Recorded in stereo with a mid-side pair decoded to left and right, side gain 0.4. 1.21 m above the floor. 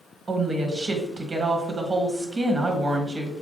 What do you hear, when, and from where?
0.3 s a woman speaking: 35° right, 1.1 m